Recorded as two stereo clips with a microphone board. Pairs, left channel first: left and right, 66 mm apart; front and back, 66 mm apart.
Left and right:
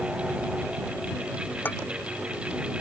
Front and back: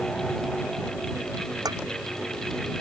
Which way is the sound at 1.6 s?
155° left.